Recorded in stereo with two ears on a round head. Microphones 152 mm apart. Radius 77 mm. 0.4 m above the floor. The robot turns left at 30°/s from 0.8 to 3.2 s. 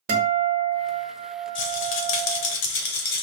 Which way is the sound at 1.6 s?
100° left.